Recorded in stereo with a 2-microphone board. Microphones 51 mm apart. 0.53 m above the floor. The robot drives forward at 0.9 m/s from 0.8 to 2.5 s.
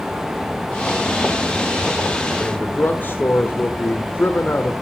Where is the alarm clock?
I don't hear an alarm clock.